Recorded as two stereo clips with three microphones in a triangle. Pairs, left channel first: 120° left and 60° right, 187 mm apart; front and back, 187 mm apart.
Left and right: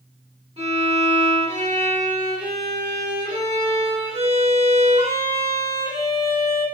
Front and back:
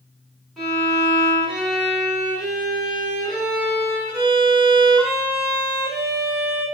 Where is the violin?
90° right, 1.7 m.